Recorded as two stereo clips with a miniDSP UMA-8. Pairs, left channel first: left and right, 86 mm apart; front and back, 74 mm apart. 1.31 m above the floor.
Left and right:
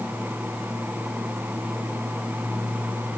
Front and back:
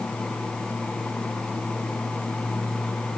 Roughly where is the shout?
No shout in this recording.